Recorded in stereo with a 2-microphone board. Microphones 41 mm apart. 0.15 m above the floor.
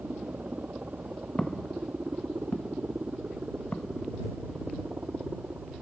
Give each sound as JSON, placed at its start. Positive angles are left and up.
{"t": 0.0, "sound": "a helicopter", "side_deg": -40}
{"t": 1.4, "sound": "footsteps", "side_deg": 20}